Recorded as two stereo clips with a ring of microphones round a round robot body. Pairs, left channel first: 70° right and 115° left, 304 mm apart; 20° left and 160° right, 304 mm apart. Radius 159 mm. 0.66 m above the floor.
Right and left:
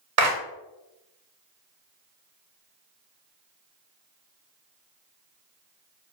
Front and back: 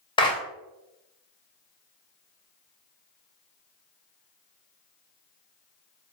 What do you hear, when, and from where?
0.2 s a clap: 95° left, 0.5 m